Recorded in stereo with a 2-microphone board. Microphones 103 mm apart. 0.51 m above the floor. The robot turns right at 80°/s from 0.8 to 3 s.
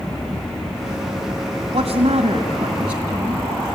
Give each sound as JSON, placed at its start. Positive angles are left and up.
{"t": 1.7, "sound": "a man speaking", "azimuth_deg": -115, "distance_m": 3.5}